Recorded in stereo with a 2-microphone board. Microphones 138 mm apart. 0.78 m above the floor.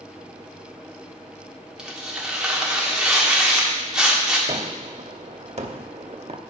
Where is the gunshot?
55° right (ahead or behind), 0.8 m.